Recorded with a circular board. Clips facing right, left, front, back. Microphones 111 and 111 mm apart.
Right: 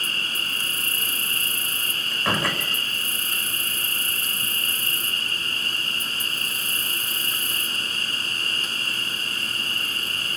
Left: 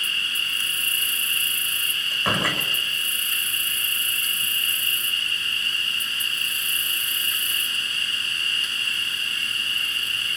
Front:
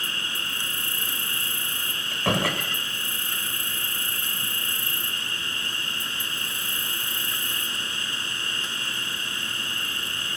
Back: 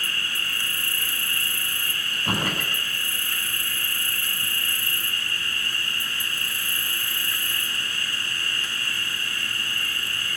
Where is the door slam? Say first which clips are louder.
Even, front 3 dB; 5° left, 7.5 m.